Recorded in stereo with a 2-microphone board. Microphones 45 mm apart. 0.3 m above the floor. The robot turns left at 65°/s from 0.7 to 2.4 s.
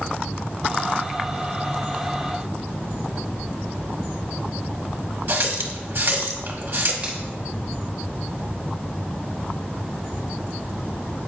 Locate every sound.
5.3 s a running tap: 55° right (ahead or behind), 1.0 m
7.0 s a finger snap: 25° right (ahead or behind), 2 m